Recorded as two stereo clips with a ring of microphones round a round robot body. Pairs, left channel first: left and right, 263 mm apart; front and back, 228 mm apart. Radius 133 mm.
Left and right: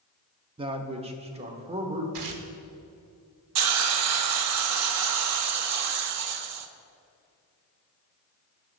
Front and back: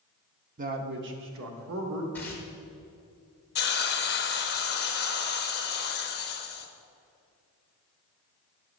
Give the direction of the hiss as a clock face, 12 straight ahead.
2 o'clock.